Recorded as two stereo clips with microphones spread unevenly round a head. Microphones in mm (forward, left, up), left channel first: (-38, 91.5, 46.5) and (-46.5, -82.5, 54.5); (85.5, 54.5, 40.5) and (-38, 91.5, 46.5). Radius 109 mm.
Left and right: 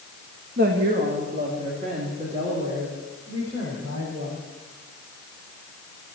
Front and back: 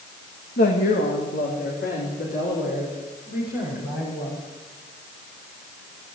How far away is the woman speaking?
About 1.8 m.